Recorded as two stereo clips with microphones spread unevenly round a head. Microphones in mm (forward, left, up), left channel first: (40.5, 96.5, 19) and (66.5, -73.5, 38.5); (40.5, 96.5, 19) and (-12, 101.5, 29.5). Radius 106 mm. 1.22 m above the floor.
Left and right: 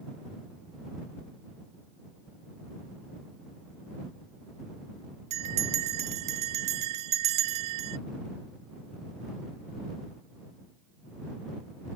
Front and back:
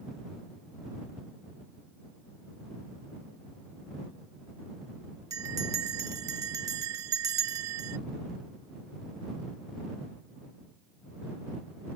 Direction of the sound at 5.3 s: 140° right.